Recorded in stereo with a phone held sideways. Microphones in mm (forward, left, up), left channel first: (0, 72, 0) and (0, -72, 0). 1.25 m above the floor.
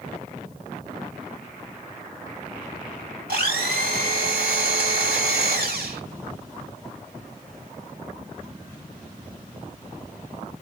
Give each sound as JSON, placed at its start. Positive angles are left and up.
{"t": 3.3, "sound": "a blender", "side_deg": -80, "distance_m": 4.0}